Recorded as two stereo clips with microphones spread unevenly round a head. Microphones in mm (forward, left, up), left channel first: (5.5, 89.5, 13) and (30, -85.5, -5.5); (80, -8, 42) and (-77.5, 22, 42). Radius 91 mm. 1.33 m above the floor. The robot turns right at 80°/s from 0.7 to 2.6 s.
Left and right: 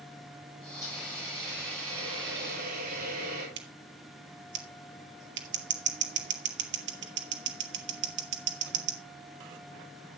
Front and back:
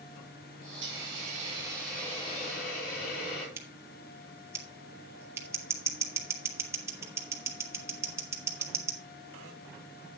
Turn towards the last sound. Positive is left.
turn(degrees=-115)